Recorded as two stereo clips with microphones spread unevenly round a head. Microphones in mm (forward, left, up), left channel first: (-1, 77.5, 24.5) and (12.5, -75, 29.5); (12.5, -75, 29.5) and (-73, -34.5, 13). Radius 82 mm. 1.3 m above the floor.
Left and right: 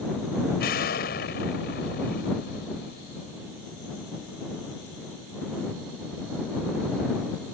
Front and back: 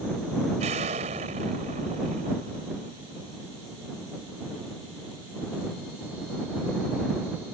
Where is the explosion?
125° left.